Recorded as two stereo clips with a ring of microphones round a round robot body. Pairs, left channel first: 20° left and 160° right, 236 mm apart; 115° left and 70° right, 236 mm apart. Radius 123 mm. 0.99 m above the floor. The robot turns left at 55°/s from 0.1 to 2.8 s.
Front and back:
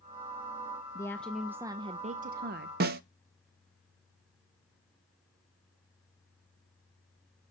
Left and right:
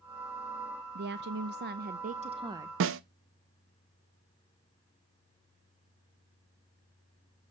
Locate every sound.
0.9 s a woman speaking: 45° right, 0.5 m; by 2.7 s 145° right, 0.5 m
2.8 s a snare drum: 105° right, 0.5 m